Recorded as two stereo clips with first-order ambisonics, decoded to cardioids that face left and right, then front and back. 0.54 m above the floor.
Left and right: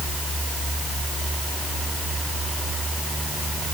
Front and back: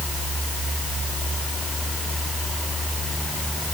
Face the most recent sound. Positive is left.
No sound to turn to.